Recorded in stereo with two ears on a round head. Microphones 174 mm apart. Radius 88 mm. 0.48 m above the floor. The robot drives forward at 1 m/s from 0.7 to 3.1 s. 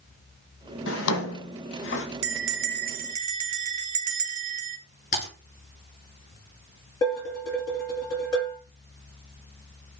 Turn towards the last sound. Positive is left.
turn(degrees=20)  # may be behind; listen again after turning